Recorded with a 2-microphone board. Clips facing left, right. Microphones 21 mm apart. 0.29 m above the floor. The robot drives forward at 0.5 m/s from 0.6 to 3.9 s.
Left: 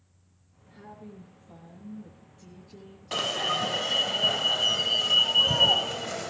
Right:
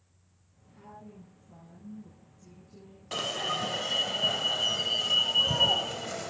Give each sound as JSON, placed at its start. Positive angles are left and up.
{"t": 0.7, "sound": "a woman speaking", "side_deg": 65, "distance_m": 9.0}
{"t": 3.1, "sound": "an alarm", "side_deg": 20, "distance_m": 1.0}